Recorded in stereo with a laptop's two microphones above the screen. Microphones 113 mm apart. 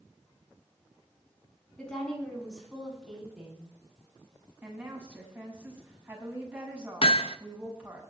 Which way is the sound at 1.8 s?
10° left (ahead or behind).